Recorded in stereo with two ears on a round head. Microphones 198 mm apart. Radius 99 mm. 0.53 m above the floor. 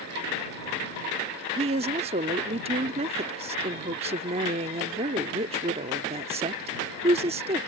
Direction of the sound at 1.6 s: 30° right (ahead or behind).